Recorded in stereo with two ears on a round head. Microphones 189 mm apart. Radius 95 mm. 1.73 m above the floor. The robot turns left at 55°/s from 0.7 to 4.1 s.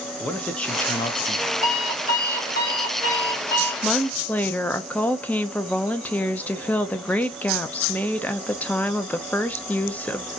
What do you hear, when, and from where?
0.2 s a man speaking: 175° left, 0.6 m; by 1.5 s 130° left, 0.6 m
1.6 s an alarm clock: 130° left, 1.2 m; by 3.7 s 15° left, 1.2 m
3.8 s a woman speaking: 5° right (ahead or behind), 0.5 m; by 10.3 s 5° left (ahead or behind), 0.5 m